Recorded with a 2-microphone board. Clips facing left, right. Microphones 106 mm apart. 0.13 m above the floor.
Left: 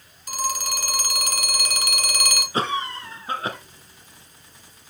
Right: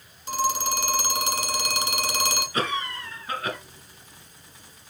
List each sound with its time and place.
0.3 s a phone ringing: 25° right (ahead or behind), 1.2 m
2.5 s a cough: 30° left (ahead or behind), 1.3 m